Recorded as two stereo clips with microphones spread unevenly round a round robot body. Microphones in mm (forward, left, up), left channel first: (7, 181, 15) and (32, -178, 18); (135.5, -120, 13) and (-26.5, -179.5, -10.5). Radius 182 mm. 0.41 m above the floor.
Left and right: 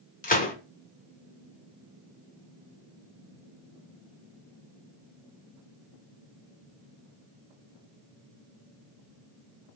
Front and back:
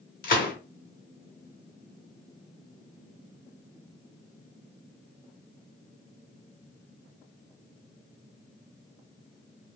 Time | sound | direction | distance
0.2 | a gunshot | 35° left | 0.6 m